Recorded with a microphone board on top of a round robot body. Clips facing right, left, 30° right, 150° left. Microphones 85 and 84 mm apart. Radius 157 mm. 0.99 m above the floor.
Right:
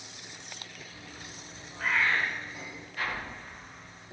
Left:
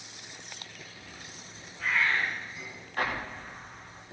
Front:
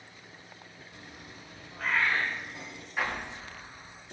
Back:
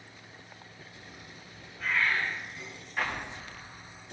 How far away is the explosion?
About 3 m.